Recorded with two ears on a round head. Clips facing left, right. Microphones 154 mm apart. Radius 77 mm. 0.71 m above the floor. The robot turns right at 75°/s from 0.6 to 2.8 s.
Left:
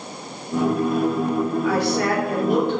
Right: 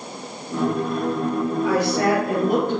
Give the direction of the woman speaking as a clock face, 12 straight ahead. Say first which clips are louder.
Right 4 dB; 4 o'clock.